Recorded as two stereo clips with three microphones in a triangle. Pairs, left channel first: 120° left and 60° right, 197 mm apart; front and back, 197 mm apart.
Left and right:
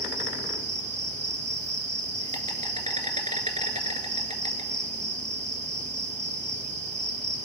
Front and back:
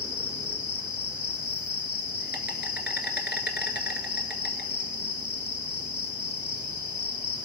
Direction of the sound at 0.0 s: 10° right.